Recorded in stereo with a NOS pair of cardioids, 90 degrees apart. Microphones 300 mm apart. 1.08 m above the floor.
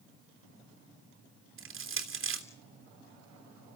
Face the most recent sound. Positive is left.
turn(degrees=-45)